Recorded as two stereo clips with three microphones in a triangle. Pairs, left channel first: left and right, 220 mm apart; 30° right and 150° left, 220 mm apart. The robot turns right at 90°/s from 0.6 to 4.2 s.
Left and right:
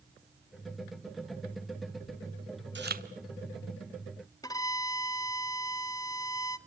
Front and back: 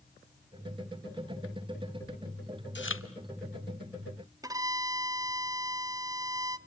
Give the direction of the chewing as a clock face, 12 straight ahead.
2 o'clock.